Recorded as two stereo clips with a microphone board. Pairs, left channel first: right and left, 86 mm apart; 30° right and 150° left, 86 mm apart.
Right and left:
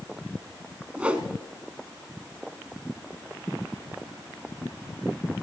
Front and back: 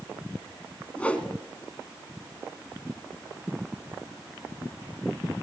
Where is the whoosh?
30° left, 1.0 m.